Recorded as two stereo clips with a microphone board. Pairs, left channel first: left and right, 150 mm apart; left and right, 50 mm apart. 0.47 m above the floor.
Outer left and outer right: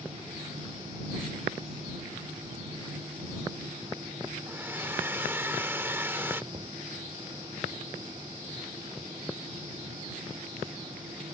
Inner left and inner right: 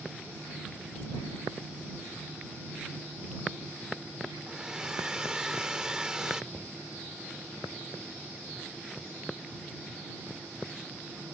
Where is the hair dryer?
15° right (ahead or behind).